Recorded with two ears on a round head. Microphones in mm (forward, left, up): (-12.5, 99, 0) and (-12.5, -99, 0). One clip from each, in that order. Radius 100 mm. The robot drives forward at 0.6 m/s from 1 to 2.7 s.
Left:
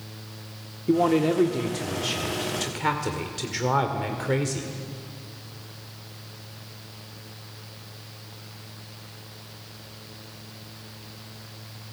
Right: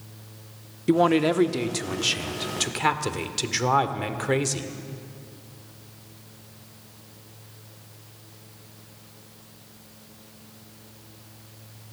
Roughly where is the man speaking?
Right.